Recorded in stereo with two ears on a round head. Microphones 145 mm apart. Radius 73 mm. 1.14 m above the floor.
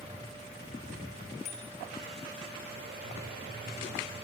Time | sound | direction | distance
1.4 | a bicycle bell | 40° left (ahead or behind) | 5.5 m